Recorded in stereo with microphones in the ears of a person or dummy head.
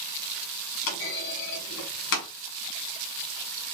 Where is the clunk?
60° left (ahead or behind), 1.1 m.